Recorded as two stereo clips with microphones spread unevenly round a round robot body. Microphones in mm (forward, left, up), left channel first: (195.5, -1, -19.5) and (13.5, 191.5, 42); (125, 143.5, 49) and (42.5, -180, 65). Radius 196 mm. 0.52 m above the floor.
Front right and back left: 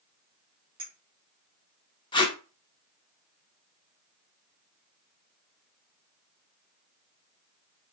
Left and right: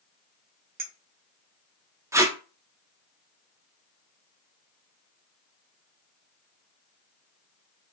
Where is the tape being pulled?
25° right, 0.8 m.